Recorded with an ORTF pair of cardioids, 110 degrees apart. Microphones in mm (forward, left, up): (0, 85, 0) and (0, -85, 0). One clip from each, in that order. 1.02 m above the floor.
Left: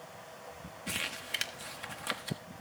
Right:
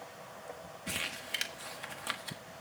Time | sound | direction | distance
0.9 | crumpling | 5° left | 1.2 m